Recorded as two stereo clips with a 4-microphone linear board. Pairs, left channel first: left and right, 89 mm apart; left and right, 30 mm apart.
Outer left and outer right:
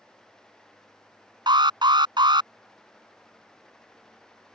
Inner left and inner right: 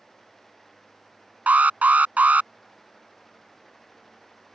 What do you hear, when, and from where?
1.5 s an alarm: 60° right (ahead or behind)